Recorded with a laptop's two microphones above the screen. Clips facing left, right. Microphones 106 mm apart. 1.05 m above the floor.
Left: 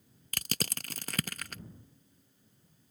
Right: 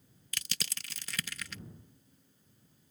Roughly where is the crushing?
Left.